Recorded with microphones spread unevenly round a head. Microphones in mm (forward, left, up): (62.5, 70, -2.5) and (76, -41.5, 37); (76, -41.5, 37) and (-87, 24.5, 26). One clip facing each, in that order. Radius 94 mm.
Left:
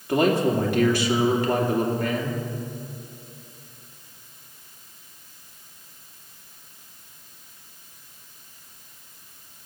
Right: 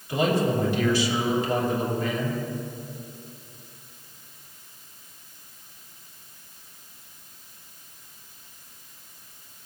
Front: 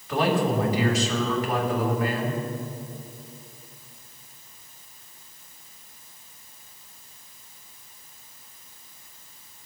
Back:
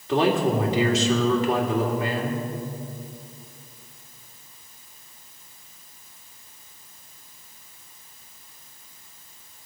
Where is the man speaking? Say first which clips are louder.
Left 3 dB, back 2 dB; 95° left, 2.5 m.